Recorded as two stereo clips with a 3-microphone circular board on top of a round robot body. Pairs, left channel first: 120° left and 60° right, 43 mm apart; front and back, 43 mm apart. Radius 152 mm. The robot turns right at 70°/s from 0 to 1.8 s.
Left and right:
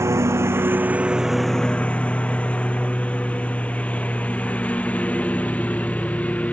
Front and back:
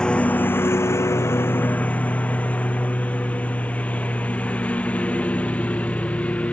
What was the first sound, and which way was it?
A lawn mower, 70° right.